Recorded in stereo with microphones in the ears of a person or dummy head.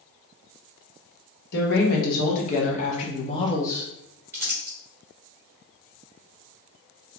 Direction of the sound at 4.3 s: 10° right (ahead or behind).